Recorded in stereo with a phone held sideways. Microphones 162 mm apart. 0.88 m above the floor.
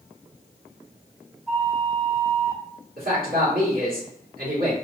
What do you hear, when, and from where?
1.5 s a flute: 15° right (ahead or behind), 1.5 m
3.0 s a man speaking: 70° right (ahead or behind), 1.8 m